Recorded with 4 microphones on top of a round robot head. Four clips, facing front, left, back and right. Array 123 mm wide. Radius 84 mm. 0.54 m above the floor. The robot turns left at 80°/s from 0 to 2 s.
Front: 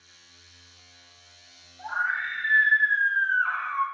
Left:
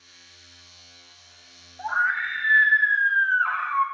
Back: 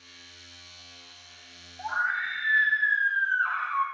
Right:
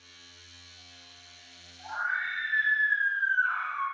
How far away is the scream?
About 5.5 m.